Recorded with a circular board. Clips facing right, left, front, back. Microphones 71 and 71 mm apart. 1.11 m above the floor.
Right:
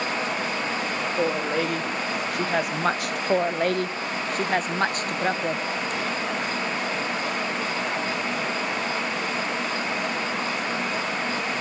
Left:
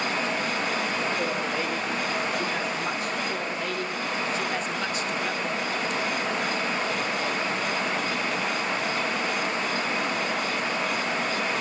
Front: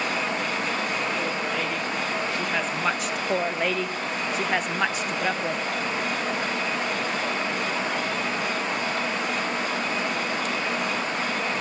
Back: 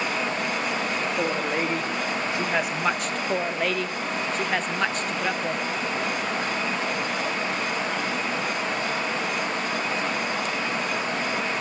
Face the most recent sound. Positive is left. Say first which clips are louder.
# right 8 dB, front 1 dB
turn(degrees=-85)